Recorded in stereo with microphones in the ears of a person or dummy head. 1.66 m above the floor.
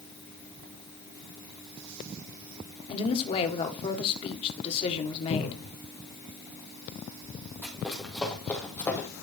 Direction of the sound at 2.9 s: 35° left (ahead or behind).